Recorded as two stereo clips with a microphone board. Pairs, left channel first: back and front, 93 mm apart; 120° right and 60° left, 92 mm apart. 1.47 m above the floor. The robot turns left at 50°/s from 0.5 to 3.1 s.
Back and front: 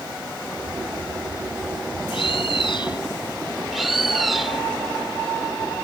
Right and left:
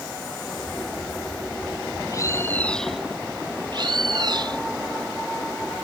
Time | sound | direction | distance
2.1 | a bird | 165° right | ?
3.7 | a bird | 90° left | ?